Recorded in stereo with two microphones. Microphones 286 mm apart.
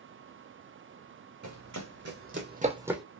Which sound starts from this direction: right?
Running footsteps, at 1.4 s.